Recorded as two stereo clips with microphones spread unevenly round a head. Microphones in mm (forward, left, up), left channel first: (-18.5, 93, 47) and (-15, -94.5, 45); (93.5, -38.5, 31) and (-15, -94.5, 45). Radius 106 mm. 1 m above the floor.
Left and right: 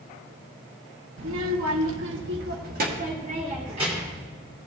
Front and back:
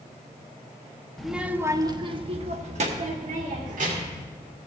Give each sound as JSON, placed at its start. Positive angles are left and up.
{"t": 1.2, "sound": "a child speaking", "azimuth_deg": -60, "distance_m": 0.9}